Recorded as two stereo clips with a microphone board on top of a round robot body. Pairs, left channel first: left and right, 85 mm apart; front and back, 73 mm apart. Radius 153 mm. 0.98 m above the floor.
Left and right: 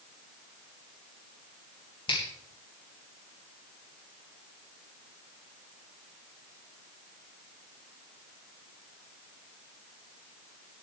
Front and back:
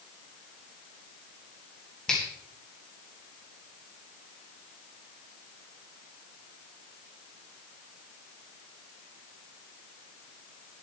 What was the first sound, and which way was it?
A finger snap, 80° left.